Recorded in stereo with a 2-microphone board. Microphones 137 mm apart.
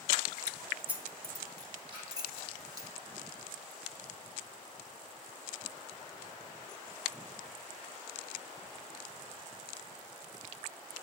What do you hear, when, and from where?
0.5 s keys jangling: 10° left (ahead or behind), 0.6 m; by 2.9 s 30° right (ahead or behind), 2.5 m
1.9 s a splash: 35° right (ahead or behind), 5.5 m